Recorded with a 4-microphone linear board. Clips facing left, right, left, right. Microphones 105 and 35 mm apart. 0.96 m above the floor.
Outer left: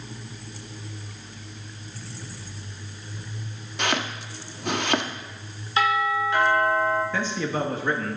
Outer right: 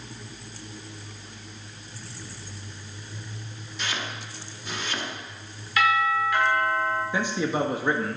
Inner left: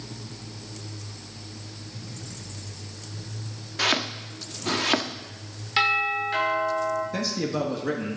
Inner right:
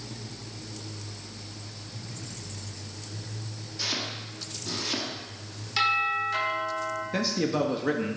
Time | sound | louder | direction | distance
3.8 | chopping | outer left 6 dB, inner left 8 dB | 65° left (ahead or behind) | 0.9 m
5.8 | a doorbell | even, inner left 2 dB | 30° left (ahead or behind) | 4.5 m
7.1 | a man speaking | outer right 1 dB, inner right 1 dB | 15° right (ahead or behind) | 1.3 m